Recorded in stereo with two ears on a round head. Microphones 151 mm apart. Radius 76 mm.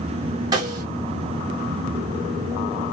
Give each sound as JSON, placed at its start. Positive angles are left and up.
{"t": 0.5, "sound": "a snare drum", "side_deg": -25, "distance_m": 0.9}